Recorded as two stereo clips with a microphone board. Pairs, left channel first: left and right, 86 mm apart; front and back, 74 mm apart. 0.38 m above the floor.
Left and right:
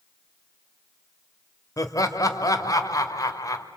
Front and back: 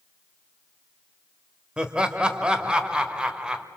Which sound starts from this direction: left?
Laughter, at 1.8 s.